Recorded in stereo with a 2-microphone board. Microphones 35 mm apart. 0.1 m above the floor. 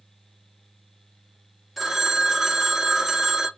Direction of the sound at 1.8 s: 5° right (ahead or behind).